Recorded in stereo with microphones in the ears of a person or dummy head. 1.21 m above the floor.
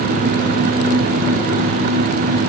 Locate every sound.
Only background noise.